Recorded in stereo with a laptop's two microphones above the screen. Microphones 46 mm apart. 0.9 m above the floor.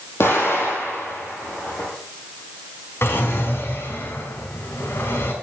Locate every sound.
0.2 s an explosion: 65° left (ahead or behind), 5.5 m
3.0 s a drawer: 65° left (ahead or behind), 2 m